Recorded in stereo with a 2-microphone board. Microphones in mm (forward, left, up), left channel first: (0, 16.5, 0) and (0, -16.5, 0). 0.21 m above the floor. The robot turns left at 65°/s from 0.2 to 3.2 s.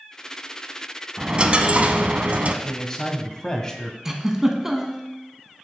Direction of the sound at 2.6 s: 15° left (ahead or behind).